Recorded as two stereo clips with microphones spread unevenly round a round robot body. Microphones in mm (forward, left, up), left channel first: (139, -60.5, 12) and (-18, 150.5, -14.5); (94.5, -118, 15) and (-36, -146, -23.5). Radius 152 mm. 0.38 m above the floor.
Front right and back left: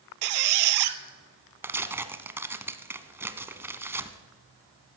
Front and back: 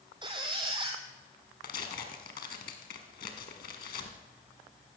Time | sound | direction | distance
0.2 | a squeak | 115° left | 0.9 m
1.6 | tearing paper | 45° left | 1.0 m